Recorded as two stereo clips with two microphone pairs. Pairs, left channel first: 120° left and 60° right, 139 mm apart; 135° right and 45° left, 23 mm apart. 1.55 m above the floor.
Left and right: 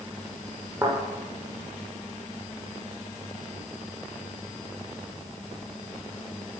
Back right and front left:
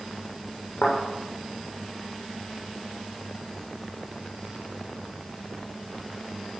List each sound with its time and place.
0.8 s a thud: 130° right, 8 m